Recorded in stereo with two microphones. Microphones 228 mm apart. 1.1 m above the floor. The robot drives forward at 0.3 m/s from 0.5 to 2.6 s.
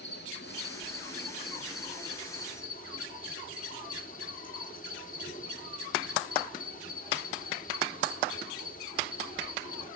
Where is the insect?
50° left (ahead or behind), 1.6 m; by 10.0 s 40° left (ahead or behind), 2 m.